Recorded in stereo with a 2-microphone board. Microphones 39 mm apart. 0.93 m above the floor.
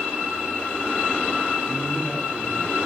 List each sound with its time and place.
1.7 s a man speaking: 15° left (ahead or behind), 5.5 m